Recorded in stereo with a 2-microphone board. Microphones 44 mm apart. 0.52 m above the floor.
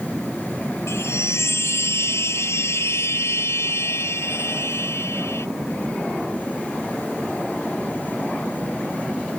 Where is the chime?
75° left (ahead or behind).